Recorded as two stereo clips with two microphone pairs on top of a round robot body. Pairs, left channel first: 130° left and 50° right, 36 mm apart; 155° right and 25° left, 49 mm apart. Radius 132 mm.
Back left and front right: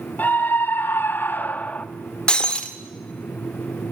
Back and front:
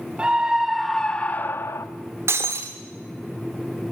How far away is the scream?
About 2 m.